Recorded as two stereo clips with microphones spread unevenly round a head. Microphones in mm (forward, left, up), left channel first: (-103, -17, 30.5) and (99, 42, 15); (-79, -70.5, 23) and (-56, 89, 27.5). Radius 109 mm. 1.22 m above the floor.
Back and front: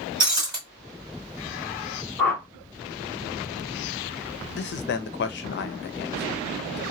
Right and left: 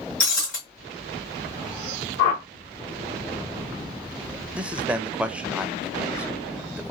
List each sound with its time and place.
0.2 s breaking glass: 55° right, 1.6 m
2.2 s a whoosh: 80° right, 1.3 m
4.5 s a man speaking: 165° left, 0.5 m